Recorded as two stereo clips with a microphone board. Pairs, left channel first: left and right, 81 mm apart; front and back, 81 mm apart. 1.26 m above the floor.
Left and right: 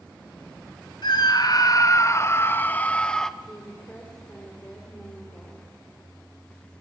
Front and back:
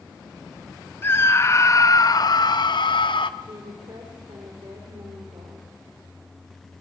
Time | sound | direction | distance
1.0 | a scream | 65° left | 2 m
3.4 | a woman speaking | 160° left | 5 m